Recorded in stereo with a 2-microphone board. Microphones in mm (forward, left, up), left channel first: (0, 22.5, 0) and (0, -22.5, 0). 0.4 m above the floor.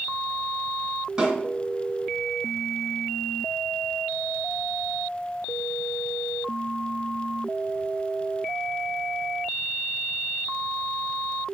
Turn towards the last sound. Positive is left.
turn(degrees=-15)  # may be behind; listen again after turning